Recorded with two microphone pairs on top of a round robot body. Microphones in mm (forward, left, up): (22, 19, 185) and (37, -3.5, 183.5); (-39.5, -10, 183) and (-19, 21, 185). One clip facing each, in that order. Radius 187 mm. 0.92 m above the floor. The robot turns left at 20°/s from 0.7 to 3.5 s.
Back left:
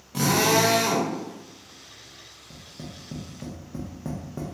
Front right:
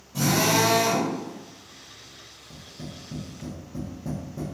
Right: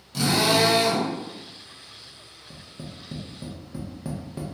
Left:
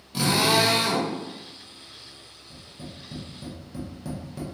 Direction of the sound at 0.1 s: 135° left.